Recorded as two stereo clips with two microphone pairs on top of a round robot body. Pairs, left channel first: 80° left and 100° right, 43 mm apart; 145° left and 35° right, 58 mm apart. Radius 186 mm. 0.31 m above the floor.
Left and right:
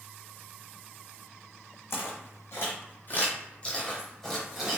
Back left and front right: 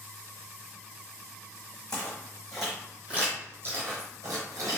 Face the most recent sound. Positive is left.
turn(degrees=-25)